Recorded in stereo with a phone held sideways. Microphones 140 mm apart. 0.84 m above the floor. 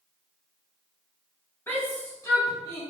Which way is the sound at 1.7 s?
15° left (ahead or behind).